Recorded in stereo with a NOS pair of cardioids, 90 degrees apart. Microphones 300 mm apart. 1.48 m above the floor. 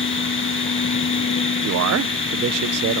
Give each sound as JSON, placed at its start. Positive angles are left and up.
{"t": 0.0, "sound": "a machine running", "azimuth_deg": 40}
{"t": 1.6, "sound": "a man speaking", "azimuth_deg": -55}